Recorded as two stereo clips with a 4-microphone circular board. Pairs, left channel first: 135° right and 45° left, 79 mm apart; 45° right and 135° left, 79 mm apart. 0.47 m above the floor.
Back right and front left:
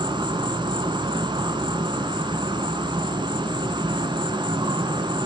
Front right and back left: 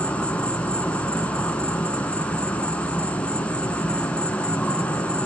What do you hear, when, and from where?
0.0 s an insect: 30° left, 1.2 m